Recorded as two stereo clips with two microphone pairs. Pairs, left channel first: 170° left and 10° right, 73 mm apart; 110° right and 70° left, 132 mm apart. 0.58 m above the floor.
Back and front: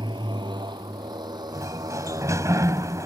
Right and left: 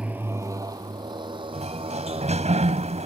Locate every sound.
0.0 s a motorcycle: 10° right; by 3.1 s 25° left
1.5 s a sliding door: 35° left